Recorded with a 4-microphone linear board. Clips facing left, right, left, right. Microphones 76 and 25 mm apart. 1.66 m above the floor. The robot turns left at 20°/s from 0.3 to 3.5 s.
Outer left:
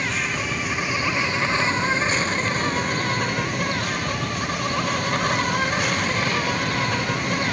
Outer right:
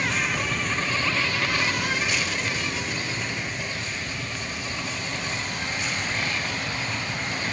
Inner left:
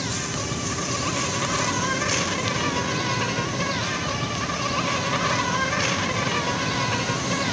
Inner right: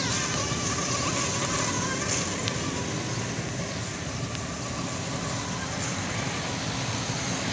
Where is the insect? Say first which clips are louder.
Even, even; straight behind, 0.9 m; by 7.5 s 115° left, 0.9 m.